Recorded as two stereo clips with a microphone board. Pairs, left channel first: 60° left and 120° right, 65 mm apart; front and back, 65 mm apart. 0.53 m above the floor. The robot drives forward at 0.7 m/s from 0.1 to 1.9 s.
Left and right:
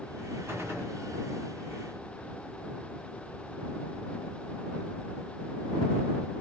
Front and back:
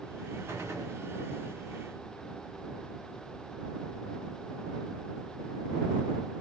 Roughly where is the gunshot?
Behind.